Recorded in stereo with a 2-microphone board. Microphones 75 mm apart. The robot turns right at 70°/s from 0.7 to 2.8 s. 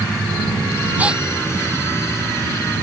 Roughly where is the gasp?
Right.